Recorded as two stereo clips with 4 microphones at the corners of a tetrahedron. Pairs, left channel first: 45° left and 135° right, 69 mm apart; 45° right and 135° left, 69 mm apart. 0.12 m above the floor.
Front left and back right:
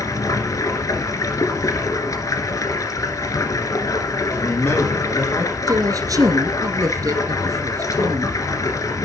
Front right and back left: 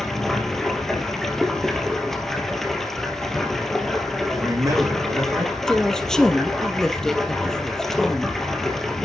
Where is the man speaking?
100° left, 6 m.